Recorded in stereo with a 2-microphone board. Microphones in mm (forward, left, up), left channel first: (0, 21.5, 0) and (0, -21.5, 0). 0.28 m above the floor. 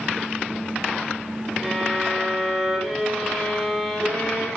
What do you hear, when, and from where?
1.6 s a violin: 5° left (ahead or behind), 4 m